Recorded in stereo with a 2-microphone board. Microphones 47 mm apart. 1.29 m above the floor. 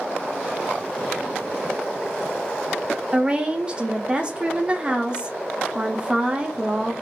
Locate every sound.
3.1 s a woman speaking: 25° right (ahead or behind), 0.6 m